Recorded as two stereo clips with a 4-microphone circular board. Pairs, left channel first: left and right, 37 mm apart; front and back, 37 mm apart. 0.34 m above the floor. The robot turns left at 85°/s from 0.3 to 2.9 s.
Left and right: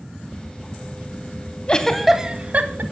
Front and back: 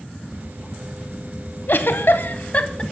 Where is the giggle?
30° left, 0.8 m; by 2.8 s 70° right, 0.8 m.